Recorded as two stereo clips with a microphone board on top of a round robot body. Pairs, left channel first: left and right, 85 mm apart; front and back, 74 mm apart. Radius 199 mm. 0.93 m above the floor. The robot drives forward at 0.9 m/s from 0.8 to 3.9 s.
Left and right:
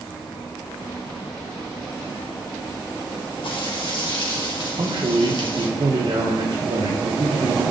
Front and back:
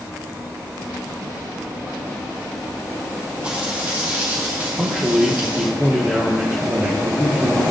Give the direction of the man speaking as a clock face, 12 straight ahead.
4 o'clock.